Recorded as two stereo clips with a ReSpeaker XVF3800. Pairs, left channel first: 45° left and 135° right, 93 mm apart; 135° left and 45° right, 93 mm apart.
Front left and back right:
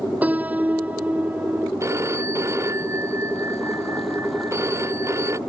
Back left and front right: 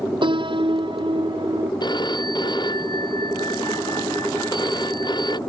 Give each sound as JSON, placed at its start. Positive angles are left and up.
{"t": 0.2, "sound": "a piano", "azimuth_deg": -60}
{"t": 1.8, "sound": "a phone ringing", "azimuth_deg": 170}